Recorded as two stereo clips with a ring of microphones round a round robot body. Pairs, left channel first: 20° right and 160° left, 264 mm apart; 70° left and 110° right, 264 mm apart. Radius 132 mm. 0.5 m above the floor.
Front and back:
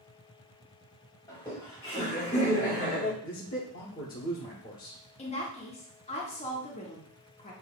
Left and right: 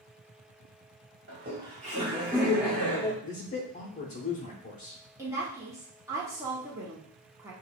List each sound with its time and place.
1.3 s laughter: 95° right, 1.7 m; by 3.1 s straight ahead, 1.6 m
3.2 s a man speaking: 20° left, 0.9 m
5.2 s a woman speaking: 45° right, 1.1 m